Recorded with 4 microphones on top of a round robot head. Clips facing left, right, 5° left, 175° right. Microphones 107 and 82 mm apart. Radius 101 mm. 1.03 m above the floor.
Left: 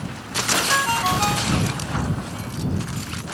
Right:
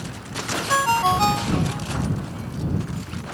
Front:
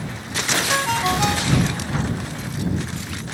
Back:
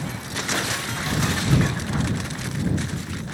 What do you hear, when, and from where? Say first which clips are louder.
0.7 s a ringtone: right 4 dB, front 7 dB; 25° right